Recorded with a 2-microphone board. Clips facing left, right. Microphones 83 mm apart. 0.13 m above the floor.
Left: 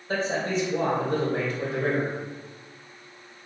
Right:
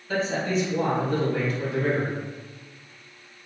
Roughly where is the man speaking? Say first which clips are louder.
Right 1 dB; left.